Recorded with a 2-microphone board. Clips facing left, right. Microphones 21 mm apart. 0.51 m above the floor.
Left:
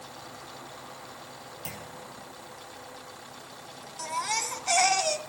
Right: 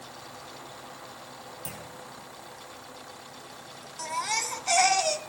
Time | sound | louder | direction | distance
1.6 | a clunk | left 3 dB | 30° left (ahead or behind) | 5 m
4.0 | a baby crying | even | centre (ahead or behind) | 1.7 m